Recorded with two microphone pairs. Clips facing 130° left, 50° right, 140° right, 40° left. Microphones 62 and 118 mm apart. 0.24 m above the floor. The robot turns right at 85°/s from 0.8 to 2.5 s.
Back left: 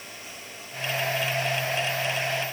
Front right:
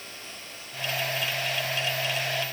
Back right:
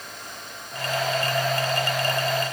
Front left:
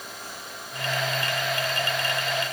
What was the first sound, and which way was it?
Only background noise.